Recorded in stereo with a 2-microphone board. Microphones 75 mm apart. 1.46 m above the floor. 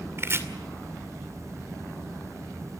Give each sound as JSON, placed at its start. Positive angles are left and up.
{"t": 0.2, "sound": "chopping", "side_deg": -35, "distance_m": 2.5}